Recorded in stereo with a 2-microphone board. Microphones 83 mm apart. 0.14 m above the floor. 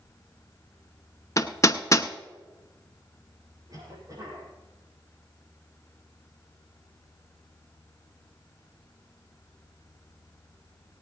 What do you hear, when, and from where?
1.4 s hammering: 40° left (ahead or behind), 0.6 m
3.7 s a cough: 45° right (ahead or behind), 6 m